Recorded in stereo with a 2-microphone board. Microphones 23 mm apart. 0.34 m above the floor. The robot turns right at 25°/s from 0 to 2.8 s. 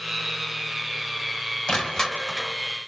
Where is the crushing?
40° left (ahead or behind), 3 m; by 2.5 s 20° left (ahead or behind), 3 m.